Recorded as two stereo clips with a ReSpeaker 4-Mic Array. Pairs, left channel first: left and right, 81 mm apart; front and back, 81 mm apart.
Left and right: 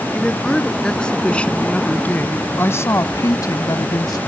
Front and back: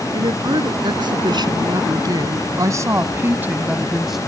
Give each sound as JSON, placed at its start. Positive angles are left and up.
{"t": 0.1, "sound": "a woman speaking", "azimuth_deg": 175}